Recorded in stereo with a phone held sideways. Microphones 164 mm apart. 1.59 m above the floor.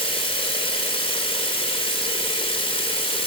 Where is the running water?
35° left (ahead or behind), 2.5 m.